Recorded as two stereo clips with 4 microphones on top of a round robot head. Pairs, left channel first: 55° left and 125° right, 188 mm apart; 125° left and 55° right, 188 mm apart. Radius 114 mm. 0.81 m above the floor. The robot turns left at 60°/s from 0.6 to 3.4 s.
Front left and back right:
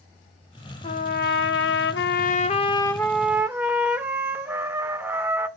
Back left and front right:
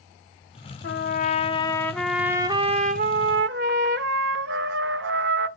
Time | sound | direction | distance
0.8 | a trumpet | 105° left | 0.5 m